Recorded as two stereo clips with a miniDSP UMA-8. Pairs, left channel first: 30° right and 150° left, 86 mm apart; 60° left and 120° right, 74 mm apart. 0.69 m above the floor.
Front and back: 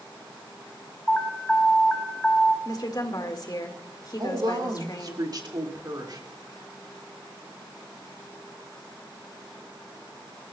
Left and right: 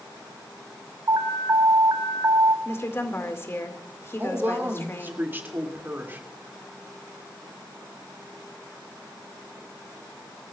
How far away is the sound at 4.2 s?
About 2.5 m.